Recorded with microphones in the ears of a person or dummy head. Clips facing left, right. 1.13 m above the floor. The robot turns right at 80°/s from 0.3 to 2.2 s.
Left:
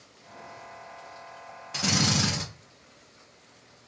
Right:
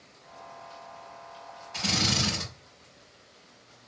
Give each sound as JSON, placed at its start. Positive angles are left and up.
{"t": 1.7, "sound": "a drill", "azimuth_deg": 105, "distance_m": 1.3}